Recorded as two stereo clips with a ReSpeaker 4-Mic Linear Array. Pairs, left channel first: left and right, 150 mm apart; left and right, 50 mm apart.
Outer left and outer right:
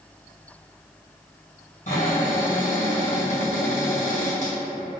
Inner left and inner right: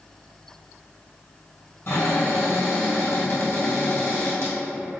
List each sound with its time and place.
1.9 s a cupboard door: 55° left (ahead or behind), 2.0 m